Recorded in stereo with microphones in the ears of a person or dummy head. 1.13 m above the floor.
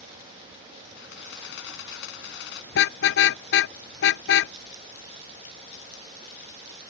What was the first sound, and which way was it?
A camera shutter, 65° left (ahead or behind).